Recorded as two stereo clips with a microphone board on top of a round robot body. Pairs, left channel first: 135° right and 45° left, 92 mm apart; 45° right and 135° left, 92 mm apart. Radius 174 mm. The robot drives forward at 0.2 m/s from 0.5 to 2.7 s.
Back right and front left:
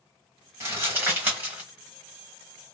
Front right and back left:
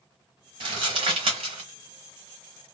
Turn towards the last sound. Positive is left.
turn(degrees=130)